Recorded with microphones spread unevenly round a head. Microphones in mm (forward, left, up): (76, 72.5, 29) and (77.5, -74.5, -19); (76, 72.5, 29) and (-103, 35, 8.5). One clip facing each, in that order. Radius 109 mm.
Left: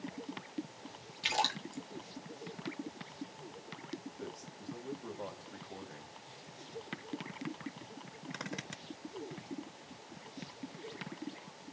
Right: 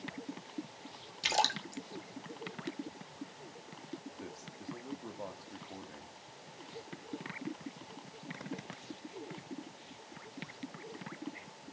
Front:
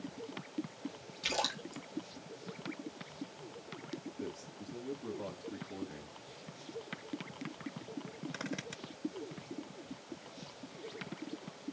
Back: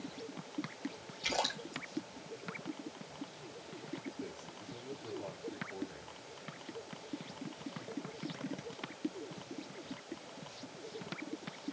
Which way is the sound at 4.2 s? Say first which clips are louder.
Left 1 dB, front 2 dB; 10° right.